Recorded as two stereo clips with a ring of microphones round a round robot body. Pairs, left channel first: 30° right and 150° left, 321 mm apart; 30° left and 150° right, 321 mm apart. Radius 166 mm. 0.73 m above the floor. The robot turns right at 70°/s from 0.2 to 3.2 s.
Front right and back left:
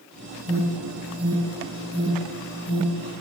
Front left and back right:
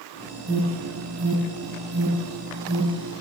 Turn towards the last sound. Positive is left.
turn(degrees=15)